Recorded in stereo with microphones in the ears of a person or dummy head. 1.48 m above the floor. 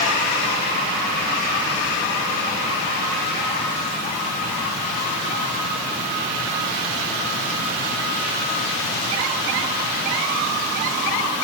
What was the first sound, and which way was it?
Only background noise.